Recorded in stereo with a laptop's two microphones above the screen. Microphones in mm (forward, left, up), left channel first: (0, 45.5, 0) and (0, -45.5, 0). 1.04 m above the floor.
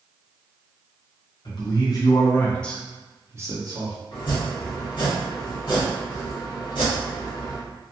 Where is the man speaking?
55° left (ahead or behind), 1.0 m; by 4.0 s 50° right (ahead or behind), 0.8 m.